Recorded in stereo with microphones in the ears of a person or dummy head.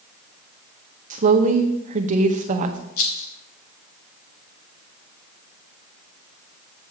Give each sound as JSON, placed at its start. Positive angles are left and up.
{"t": 1.1, "sound": "a woman speaking", "side_deg": -40, "distance_m": 1.0}
{"t": 3.0, "sound": "a rattle", "side_deg": 50, "distance_m": 1.3}